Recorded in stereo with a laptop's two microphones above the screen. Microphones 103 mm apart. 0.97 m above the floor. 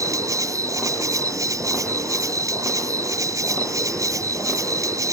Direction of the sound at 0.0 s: 30° right (ahead or behind).